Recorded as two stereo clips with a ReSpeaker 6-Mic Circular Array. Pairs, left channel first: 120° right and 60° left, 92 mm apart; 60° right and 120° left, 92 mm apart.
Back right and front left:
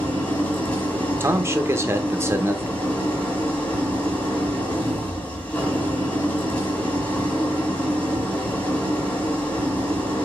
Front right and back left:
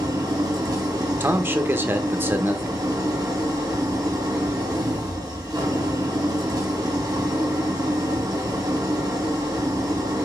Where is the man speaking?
80° left, 0.8 m.